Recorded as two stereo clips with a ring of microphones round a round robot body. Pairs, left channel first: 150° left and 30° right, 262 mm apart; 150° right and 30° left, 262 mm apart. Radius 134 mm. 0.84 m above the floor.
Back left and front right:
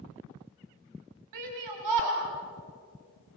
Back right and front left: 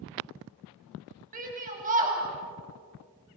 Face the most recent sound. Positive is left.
turn(degrees=-30)